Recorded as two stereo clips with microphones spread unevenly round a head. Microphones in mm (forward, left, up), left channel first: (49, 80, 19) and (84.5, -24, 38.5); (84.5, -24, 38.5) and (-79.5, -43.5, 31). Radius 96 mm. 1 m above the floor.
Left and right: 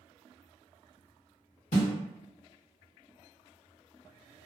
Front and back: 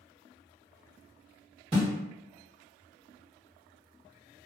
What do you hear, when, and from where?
1.7 s a snare drum: 125° left, 1.2 m